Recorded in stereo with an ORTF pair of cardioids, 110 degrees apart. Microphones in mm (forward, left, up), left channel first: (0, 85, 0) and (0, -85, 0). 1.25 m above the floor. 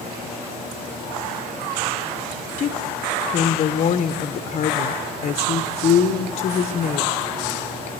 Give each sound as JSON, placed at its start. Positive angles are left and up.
{"t": 2.6, "sound": "a woman speaking", "azimuth_deg": 40, "distance_m": 0.6}